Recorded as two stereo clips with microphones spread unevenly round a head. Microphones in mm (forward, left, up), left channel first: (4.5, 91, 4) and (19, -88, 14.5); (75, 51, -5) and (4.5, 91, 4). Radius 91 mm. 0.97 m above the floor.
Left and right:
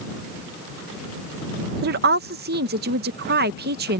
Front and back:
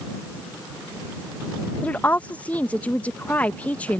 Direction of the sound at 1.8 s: 100° right.